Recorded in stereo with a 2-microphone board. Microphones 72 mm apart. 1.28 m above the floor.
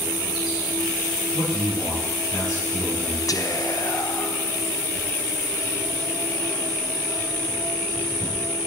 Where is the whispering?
55° left (ahead or behind), 0.7 m.